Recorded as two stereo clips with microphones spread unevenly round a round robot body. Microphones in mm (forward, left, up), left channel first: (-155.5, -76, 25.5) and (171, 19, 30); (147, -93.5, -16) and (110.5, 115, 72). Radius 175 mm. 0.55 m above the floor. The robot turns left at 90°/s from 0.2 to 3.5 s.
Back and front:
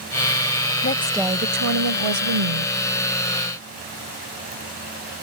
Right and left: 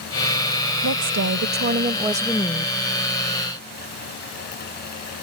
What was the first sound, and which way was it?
A woman speaking, 135° left.